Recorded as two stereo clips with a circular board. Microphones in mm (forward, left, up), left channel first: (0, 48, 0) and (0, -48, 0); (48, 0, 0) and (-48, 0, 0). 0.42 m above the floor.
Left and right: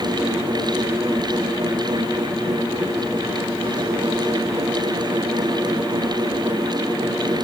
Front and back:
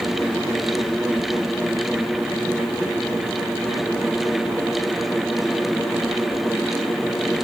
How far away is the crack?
No crack in this recording.